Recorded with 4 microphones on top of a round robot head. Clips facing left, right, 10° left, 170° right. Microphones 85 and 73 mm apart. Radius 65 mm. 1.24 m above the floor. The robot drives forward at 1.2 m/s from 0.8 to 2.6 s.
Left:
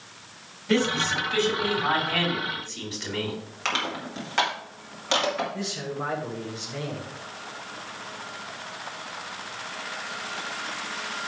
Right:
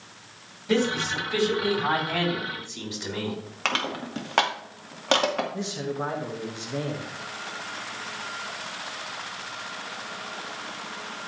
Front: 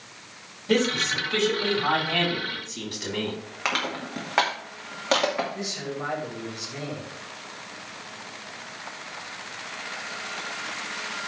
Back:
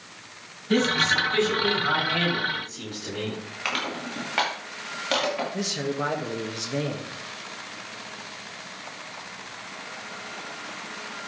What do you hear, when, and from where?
0.7 s a man speaking: 10° right, 5.5 m; by 3.4 s 15° right, 3.5 m
3.6 s crushing: 60° right, 2.5 m
5.5 s a man speaking: 160° right, 2 m